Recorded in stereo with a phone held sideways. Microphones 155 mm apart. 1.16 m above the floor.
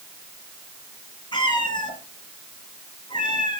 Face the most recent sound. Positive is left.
turn(degrees=30)  # may be behind; listen again after turning